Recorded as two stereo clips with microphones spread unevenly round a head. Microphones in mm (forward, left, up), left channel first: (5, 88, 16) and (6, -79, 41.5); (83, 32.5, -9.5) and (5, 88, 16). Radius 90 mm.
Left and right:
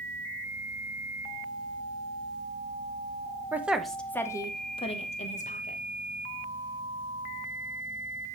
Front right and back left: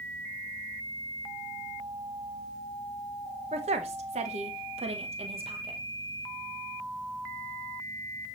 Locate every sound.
3.5 s a woman speaking: 175° right, 1.0 m; by 5.8 s 120° left, 1.4 m